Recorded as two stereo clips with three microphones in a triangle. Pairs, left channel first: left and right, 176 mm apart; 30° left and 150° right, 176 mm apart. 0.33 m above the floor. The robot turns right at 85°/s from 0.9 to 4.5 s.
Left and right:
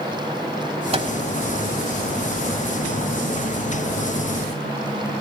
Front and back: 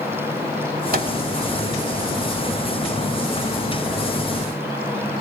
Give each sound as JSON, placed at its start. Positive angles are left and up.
{"t": 0.9, "sound": "a microwave", "azimuth_deg": -140, "distance_m": 1.5}